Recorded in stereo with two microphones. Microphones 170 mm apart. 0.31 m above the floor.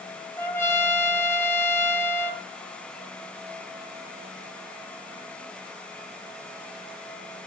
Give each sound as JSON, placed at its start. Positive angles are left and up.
{"t": 0.4, "sound": "a trumpet", "side_deg": 15, "distance_m": 1.2}